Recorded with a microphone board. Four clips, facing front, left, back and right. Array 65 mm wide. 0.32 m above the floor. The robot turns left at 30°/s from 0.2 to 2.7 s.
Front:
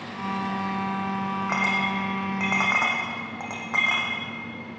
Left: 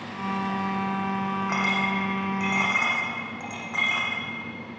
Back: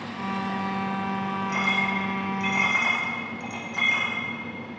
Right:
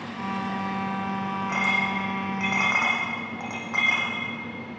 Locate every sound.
1.5 s a clink: 20° left, 9.5 m; by 4.1 s 15° right, 9.5 m